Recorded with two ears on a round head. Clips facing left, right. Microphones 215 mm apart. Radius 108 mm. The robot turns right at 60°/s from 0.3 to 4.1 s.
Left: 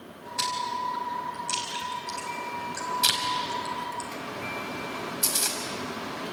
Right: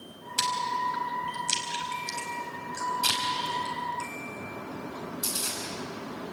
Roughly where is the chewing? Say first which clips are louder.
Right 1 dB; right.